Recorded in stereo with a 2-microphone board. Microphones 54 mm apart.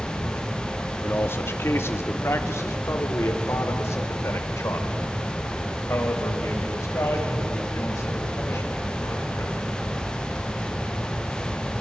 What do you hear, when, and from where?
1.0 s a man speaking: 45° left (ahead or behind), 1.4 m; by 9.5 s 65° left (ahead or behind), 6 m